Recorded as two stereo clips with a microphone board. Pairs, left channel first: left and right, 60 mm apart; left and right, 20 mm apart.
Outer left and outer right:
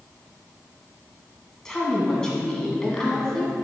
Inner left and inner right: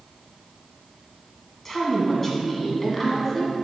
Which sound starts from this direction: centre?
A woman speaking, at 1.6 s.